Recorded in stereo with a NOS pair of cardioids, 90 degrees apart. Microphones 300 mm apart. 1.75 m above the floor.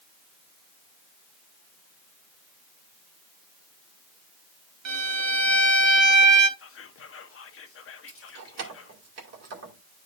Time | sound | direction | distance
4.8 | a violin | 60° right | 1.6 m
6.6 | whispering | 45° left | 1.4 m
8.1 | keys jangling | 55° right | 2 m